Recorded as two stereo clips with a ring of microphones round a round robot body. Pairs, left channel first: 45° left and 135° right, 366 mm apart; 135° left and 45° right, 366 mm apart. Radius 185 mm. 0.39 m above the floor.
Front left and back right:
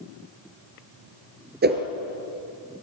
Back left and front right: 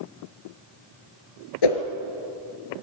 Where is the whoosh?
160° left, 2 m.